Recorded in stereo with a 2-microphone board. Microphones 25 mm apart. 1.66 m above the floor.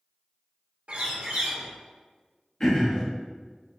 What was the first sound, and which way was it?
A bird, 60° right (ahead or behind).